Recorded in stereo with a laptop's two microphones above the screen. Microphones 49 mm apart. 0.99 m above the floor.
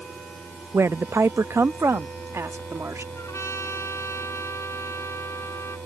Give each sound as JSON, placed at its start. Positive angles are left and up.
{"t": 0.7, "sound": "a woman speaking", "side_deg": -60}
{"t": 3.1, "sound": "a trumpet", "side_deg": 75}